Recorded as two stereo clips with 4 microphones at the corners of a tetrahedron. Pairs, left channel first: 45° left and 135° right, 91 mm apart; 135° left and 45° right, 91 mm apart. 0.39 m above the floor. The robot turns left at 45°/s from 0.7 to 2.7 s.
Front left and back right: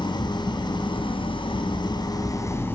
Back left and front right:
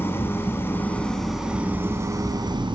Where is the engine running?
70° left, 3 m; by 2.8 s 20° right, 3 m.